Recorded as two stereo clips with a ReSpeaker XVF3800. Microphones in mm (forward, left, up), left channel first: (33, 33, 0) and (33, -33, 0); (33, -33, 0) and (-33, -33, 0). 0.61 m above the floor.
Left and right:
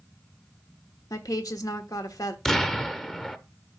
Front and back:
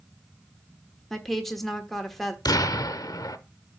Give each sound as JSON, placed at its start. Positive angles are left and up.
{"t": 1.1, "sound": "a woman speaking", "azimuth_deg": 85, "distance_m": 1.2}
{"t": 2.5, "sound": "an explosion", "azimuth_deg": 5, "distance_m": 0.6}